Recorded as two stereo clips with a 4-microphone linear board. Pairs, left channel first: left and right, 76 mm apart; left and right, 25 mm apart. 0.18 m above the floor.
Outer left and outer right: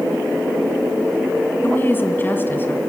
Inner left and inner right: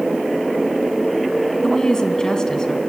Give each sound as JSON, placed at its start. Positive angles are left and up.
{"t": 1.6, "sound": "a woman speaking", "side_deg": 25, "distance_m": 1.7}